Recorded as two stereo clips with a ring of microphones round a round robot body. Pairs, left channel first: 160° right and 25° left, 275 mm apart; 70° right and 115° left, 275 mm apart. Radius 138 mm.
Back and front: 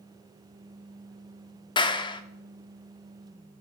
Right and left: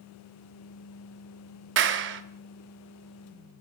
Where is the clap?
135° left, 0.7 m.